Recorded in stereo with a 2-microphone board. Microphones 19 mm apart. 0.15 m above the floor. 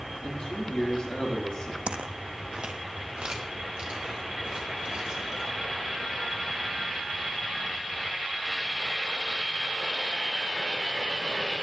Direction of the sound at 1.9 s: 85° right.